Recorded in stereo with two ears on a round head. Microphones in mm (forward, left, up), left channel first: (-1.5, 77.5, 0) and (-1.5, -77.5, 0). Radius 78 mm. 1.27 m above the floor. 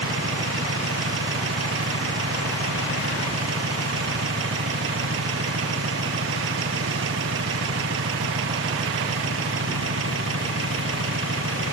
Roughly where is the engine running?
Right.